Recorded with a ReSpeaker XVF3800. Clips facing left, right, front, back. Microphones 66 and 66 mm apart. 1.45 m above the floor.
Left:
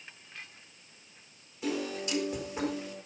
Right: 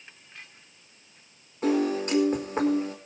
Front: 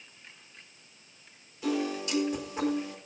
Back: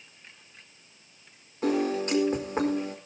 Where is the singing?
No singing in this recording.